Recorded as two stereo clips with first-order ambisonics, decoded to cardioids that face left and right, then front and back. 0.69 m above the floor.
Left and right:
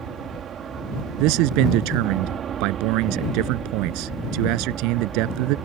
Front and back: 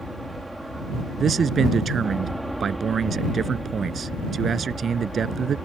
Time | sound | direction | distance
0.0 | an aircraft | 95° right | ?
1.2 | a man speaking | 115° right | ?